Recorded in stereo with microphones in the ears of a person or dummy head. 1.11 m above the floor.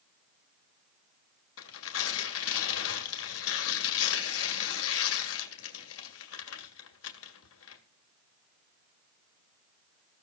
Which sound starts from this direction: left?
Tearing paper, at 1.6 s.